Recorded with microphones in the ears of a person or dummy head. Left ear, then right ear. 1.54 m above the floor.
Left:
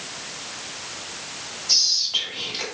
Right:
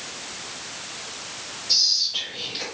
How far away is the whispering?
About 1.7 m.